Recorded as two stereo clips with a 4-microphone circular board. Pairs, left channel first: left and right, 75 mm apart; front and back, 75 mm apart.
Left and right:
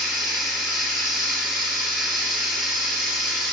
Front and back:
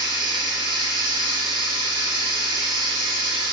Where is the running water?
Straight behind, 2 m.